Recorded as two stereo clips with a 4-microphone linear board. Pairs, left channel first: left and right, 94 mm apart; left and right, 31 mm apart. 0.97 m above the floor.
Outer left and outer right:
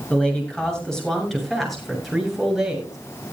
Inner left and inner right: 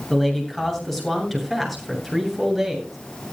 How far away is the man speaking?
About 7.5 m.